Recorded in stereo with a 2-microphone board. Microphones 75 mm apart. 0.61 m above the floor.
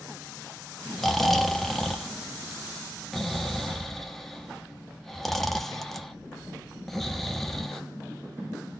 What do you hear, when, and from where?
1.0 s snoring: 5° left (ahead or behind), 0.6 m